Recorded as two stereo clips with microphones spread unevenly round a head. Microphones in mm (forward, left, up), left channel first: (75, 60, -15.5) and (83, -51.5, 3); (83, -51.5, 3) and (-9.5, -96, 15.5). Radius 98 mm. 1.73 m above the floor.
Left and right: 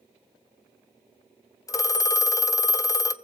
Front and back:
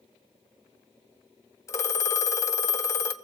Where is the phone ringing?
65° left, 0.6 m.